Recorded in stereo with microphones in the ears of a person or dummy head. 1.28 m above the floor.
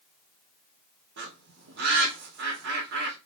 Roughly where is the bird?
Right.